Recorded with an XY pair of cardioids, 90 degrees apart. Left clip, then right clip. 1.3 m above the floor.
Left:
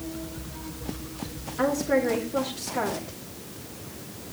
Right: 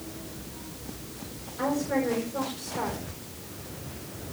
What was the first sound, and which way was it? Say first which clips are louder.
A woman speaking: left 4 dB; 70° left.